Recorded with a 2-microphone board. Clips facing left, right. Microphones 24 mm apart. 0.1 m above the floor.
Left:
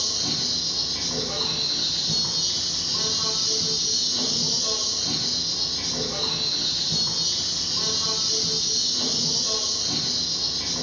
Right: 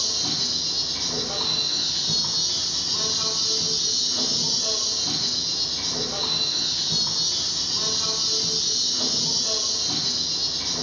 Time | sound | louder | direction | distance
0.0 | an insect | right 1 dB | 60° right (ahead or behind) | 1.6 m